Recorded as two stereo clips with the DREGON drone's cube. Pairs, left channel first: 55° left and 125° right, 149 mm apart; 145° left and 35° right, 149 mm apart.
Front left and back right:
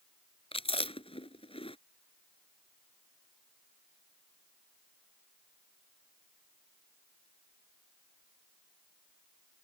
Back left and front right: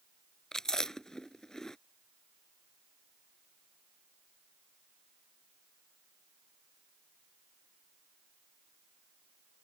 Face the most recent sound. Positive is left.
turn(degrees=60)